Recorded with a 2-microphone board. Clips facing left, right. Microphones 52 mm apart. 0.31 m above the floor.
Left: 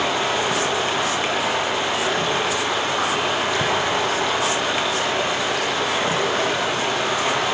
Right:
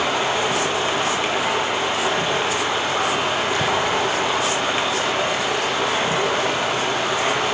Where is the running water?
25° right (ahead or behind), 5 m.